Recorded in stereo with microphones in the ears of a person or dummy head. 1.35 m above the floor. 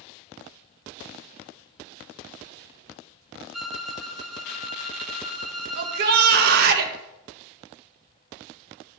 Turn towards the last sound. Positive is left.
turn(degrees=-60)  # may be behind; listen again after turning